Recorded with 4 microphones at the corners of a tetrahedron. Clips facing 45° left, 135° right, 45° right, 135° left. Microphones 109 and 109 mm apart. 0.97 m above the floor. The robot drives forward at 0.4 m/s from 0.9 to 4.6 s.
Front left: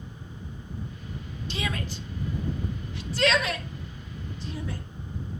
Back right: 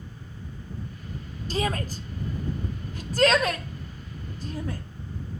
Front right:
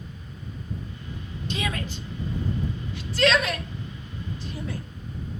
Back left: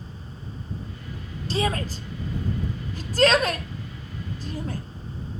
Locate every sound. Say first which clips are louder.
1.5 s a shout: back right 5 dB, back left 5 dB; straight behind, 0.7 m